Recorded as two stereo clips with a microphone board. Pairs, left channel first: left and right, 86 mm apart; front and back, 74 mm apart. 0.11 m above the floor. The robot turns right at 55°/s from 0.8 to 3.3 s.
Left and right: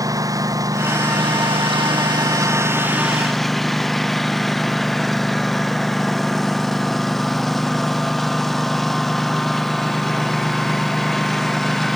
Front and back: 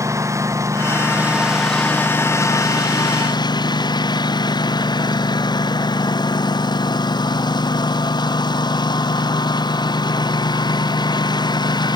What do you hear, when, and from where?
0.0 s a lawn mower: 135° right; by 12.0 s 5° left